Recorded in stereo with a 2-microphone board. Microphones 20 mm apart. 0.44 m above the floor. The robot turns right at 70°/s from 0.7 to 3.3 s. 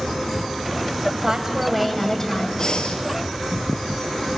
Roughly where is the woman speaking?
Ahead right.